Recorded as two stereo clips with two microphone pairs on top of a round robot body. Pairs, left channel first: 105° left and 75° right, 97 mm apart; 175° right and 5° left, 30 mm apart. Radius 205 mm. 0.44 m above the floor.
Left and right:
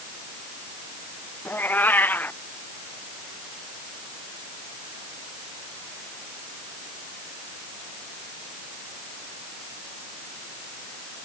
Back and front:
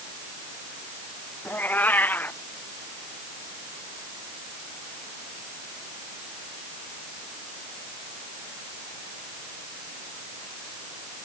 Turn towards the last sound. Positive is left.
turn(degrees=175)